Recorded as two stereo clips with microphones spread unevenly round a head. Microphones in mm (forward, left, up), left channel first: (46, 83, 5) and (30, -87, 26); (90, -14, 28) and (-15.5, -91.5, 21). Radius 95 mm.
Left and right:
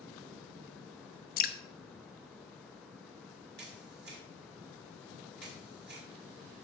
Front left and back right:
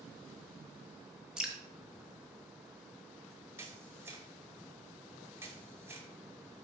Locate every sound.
1.4 s dripping: 130° left, 0.6 m
3.6 s a camera shutter: 75° right, 2 m